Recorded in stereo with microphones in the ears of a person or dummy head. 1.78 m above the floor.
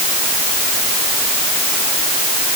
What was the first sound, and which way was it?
Only background noise.